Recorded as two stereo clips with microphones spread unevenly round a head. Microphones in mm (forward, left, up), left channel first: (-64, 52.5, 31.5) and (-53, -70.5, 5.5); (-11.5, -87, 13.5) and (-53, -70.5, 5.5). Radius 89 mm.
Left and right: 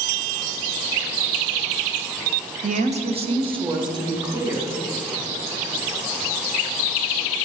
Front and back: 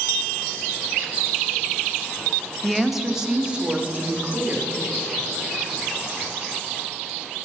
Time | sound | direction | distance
2.6 | a woman speaking | 105° right | 0.8 m